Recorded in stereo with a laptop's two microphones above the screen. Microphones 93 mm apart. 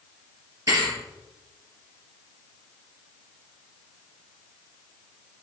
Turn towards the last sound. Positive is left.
turn(degrees=-40)  # may be behind; listen again after turning